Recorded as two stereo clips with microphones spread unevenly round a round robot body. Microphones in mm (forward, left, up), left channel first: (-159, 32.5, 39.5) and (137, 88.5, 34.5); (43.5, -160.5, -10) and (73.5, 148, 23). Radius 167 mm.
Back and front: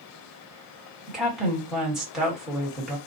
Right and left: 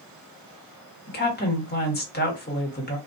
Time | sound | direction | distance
1.1 | a woman speaking | 75° right | 1.4 m